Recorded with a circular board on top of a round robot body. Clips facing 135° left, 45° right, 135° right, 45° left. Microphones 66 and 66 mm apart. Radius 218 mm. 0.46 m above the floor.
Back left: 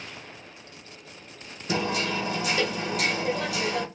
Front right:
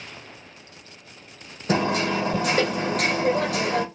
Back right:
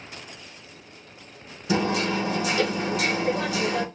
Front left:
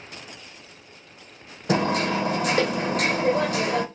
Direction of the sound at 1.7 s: Straight ahead.